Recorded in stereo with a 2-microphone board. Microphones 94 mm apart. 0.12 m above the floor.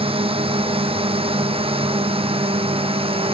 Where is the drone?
70° right (ahead or behind).